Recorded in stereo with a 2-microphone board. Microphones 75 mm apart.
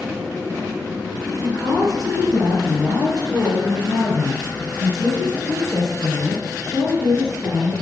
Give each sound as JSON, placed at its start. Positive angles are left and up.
{"t": 1.4, "sound": "a woman speaking", "side_deg": 50, "distance_m": 3.0}